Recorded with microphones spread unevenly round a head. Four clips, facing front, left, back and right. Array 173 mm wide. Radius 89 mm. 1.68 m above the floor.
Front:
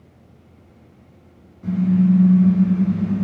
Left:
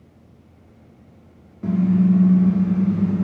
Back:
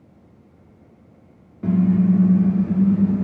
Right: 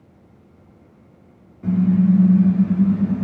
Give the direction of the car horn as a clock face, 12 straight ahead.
7 o'clock.